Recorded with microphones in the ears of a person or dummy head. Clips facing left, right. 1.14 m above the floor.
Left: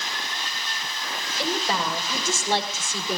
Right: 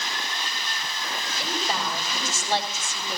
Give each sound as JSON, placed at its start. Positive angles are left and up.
{"t": 1.4, "sound": "a woman speaking", "side_deg": 55, "distance_m": 4.5}